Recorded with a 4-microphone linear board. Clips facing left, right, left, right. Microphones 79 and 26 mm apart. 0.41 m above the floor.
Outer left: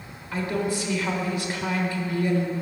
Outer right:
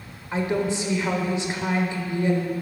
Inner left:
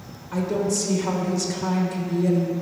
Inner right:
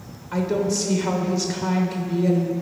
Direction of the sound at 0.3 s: 25° right (ahead or behind).